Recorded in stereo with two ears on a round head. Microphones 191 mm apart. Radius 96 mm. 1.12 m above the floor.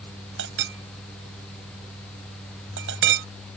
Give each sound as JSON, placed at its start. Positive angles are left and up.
{"t": 0.4, "sound": "a clink", "side_deg": -65}